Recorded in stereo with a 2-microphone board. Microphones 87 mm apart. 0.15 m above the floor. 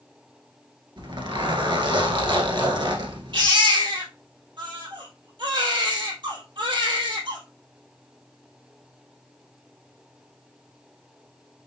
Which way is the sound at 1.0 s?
60° right (ahead or behind).